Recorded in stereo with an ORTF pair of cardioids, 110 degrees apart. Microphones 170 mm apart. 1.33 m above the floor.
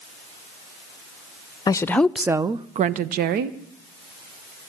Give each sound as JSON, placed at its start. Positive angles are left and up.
{"t": 1.7, "sound": "a woman speaking", "azimuth_deg": 25, "distance_m": 1.1}